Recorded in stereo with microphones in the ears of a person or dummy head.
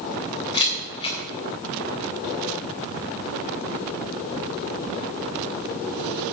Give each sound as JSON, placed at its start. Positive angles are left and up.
{"t": 0.5, "sound": "a camera shutter", "side_deg": 30, "distance_m": 3.0}